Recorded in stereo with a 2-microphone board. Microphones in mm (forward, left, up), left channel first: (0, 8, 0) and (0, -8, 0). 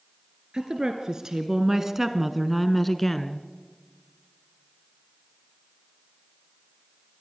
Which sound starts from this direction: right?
A woman speaking, at 0.5 s.